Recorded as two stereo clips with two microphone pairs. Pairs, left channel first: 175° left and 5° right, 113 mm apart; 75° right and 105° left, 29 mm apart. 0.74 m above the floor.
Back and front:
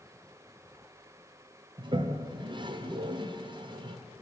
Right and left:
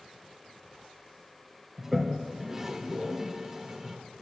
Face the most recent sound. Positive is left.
turn(degrees=25)